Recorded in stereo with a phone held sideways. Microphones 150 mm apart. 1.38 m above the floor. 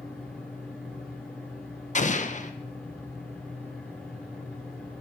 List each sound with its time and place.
0.0 s a fan: 5° left (ahead or behind), 8.5 m
1.9 s an explosion: 50° left (ahead or behind), 1.1 m